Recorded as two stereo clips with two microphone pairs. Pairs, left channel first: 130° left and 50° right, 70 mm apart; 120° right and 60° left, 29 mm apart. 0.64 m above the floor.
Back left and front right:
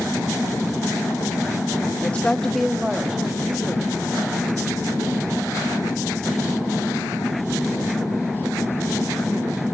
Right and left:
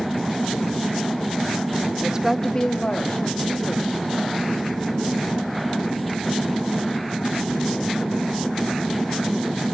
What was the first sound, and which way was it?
A woman speaking, 70° left.